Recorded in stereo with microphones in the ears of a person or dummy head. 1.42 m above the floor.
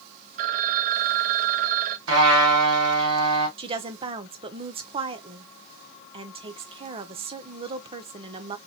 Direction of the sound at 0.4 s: 45° right (ahead or behind).